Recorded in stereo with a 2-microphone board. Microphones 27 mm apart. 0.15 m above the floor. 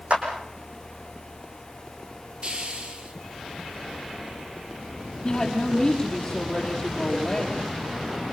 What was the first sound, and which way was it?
A clap, 60° right (ahead or behind).